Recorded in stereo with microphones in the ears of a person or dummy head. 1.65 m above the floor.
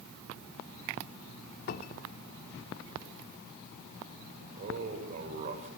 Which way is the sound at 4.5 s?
35° right (ahead or behind).